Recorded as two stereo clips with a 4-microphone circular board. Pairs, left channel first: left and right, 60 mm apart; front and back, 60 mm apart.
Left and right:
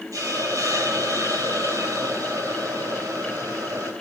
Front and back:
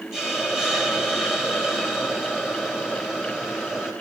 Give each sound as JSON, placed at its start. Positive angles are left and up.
{"t": 0.1, "sound": "a hiss", "azimuth_deg": -105, "distance_m": 3.0}